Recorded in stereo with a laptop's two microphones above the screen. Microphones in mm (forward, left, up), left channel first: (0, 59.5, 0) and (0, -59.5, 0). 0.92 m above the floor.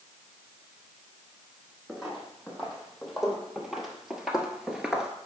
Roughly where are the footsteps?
Centre.